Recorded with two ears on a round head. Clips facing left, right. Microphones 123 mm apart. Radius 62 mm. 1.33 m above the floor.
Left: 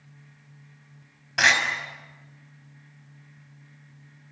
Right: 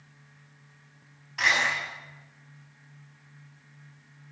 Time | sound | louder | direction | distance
1.4 | a door slam | left 4 dB | 80° left | 5.5 m